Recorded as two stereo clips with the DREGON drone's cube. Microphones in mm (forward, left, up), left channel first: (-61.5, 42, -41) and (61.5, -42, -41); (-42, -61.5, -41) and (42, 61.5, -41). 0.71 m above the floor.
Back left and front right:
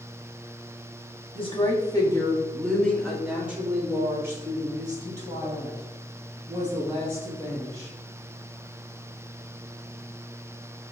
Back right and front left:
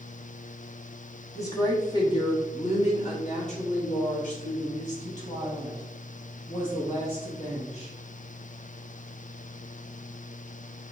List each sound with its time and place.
1.4 s a woman speaking: 175° left, 1.3 m; by 7.9 s 85° right, 4 m